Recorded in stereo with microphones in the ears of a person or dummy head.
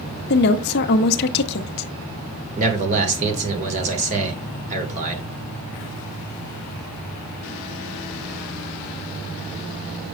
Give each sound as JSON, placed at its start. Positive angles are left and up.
{"t": 0.3, "sound": "a woman speaking", "side_deg": 55, "distance_m": 0.9}
{"t": 2.6, "sound": "a man speaking", "side_deg": -40, "distance_m": 1.9}